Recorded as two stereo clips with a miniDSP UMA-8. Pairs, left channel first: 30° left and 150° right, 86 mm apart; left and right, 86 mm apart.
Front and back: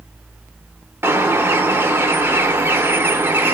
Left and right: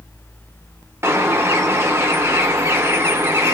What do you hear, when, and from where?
1.0 s a bird: 115° right, 0.6 m